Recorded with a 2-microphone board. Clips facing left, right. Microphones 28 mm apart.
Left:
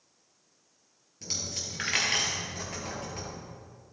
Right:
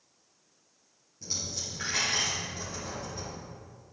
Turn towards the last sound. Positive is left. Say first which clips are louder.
# left 1 dB
turn(degrees=75)  # may be behind; listen again after turning